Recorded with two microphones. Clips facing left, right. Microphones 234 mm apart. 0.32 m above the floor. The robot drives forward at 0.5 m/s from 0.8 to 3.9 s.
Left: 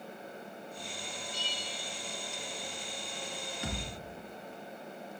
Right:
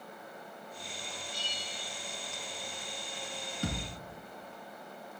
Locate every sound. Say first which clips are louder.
1.3 s a bell: left 2 dB; 40° right (ahead or behind), 1.2 m; by 2.0 s 35° right (ahead or behind), 1.5 m
3.6 s a thud: right 4 dB; 50° right (ahead or behind), 1.3 m; by 4.0 s 55° right (ahead or behind), 1.2 m